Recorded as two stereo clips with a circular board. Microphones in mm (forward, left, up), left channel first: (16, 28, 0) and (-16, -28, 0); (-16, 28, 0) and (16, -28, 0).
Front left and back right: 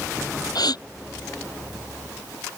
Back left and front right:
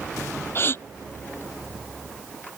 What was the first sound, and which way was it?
A gasp, 65° left.